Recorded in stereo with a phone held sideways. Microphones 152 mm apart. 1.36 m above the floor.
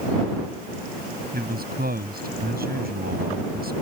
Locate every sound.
1.3 s a man speaking: 85° right